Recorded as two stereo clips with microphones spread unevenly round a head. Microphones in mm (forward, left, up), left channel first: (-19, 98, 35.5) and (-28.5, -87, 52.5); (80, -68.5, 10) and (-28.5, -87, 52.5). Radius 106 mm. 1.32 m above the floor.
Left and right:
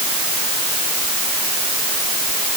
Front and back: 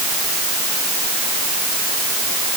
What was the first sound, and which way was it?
Only background noise.